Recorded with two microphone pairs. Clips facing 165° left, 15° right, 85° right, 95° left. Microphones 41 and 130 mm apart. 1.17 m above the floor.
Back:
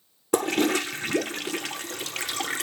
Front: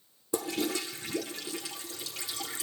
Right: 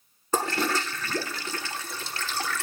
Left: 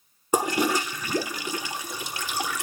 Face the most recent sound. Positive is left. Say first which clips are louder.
# back 9 dB, left 3 dB
turn(degrees=175)